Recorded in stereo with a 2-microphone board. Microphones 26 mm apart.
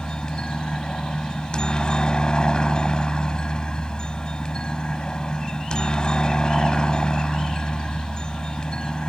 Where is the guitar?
I don't hear a guitar.